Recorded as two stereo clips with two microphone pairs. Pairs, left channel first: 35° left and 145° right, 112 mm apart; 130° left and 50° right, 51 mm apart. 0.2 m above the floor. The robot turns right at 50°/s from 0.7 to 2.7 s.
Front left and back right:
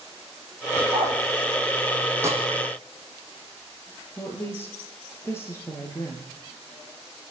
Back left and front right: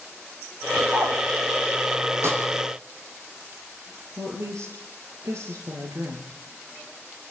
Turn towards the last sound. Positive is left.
turn(degrees=-35)